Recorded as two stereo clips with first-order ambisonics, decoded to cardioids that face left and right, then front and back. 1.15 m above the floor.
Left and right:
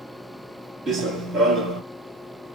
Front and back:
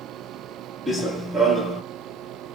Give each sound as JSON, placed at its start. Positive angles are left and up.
{"t": 0.9, "sound": "running footsteps", "azimuth_deg": -100, "distance_m": 1.2}